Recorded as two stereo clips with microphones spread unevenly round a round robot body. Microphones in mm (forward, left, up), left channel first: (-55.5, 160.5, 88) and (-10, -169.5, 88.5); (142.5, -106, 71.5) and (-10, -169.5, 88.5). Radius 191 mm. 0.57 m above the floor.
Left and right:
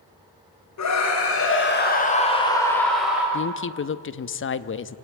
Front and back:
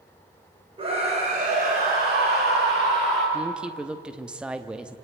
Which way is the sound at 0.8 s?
135° left.